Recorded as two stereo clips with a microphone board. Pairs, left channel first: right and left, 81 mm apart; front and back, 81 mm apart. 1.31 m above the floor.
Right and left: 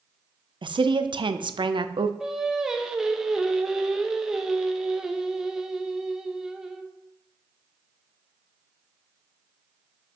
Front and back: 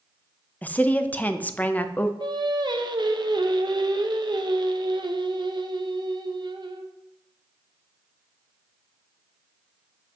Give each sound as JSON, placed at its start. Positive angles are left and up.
{"t": 0.6, "sound": "a woman speaking", "azimuth_deg": 70, "distance_m": 0.5}
{"t": 2.2, "sound": "singing", "azimuth_deg": 175, "distance_m": 0.6}